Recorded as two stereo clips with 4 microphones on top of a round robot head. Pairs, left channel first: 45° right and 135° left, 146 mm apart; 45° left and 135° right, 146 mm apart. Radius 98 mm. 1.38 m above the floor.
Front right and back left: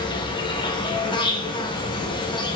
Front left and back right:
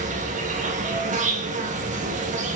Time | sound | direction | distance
0.0 | an insect | 100° right | 2.5 m